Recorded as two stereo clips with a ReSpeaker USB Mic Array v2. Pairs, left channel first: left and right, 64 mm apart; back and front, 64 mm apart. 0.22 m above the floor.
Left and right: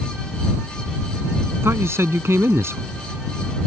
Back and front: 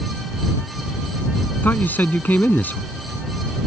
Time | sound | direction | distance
1.6 | a man speaking | 125° right | ?